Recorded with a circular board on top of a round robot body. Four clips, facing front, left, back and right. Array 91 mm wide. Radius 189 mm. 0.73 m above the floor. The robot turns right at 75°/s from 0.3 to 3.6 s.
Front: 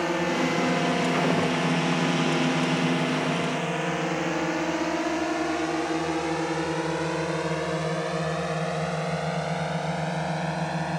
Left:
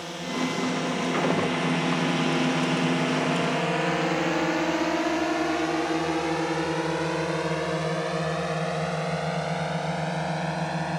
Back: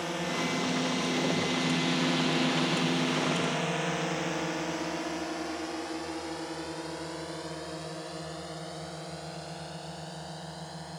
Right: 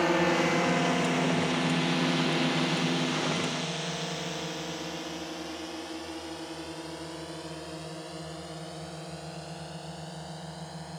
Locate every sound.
0.0 s a drone: 50° right; by 11.0 s 45° left